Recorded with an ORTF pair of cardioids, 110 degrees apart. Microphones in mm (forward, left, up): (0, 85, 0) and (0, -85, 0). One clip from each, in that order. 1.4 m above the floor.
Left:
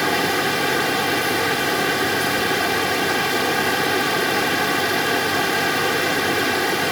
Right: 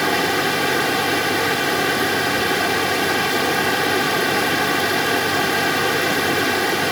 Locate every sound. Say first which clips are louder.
0.0 s a fan: right 1 dB; 10° right